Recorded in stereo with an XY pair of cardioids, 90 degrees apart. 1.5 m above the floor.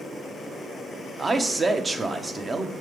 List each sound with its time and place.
1.2 s a man speaking: 30° right, 0.9 m